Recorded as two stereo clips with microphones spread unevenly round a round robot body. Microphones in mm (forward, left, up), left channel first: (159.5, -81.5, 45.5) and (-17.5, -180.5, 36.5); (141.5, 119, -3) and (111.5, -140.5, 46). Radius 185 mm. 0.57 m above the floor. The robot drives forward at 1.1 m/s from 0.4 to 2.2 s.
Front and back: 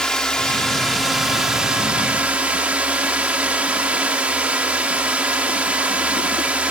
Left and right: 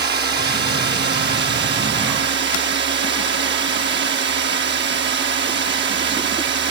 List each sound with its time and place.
0.0 s a drone: 55° right; by 6.7 s 75° right